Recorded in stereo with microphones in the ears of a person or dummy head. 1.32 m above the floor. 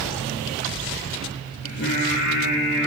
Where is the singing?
60° left (ahead or behind), 3 m.